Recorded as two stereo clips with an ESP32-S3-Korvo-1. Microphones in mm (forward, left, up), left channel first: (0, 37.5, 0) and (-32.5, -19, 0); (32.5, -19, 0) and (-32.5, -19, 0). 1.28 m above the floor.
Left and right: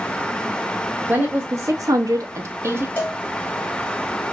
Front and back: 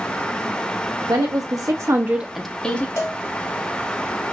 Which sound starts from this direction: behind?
A woman speaking, at 1.1 s.